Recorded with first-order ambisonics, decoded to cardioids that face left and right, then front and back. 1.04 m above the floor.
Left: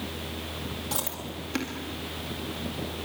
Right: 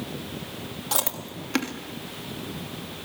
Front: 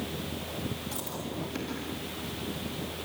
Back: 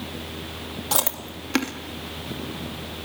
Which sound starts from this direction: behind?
Chewing, at 0.9 s.